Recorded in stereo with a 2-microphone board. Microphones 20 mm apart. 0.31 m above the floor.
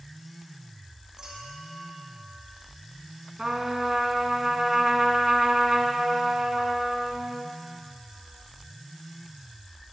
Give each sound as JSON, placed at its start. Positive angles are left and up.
{"t": 1.2, "sound": "a clink", "side_deg": -35, "distance_m": 7.5}
{"t": 3.4, "sound": "a trumpet", "side_deg": -30, "distance_m": 1.5}